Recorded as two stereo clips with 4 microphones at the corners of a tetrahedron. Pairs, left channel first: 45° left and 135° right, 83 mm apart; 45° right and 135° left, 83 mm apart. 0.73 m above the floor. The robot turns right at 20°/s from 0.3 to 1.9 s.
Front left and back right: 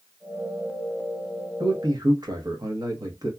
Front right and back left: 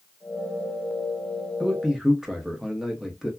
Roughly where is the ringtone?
No ringtone in this recording.